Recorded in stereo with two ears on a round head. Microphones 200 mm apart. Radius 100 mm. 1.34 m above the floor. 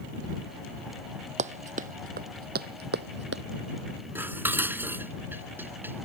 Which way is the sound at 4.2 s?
10° right (ahead or behind).